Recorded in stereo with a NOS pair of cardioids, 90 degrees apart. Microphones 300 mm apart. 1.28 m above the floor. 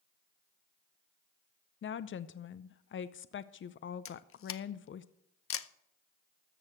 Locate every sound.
1.8 s a woman speaking: 40° left, 0.6 m
4.0 s a camera shutter: 45° left, 0.7 m